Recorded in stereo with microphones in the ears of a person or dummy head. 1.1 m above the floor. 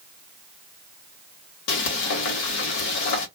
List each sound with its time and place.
1.7 s frying: 70° left (ahead or behind), 1.1 m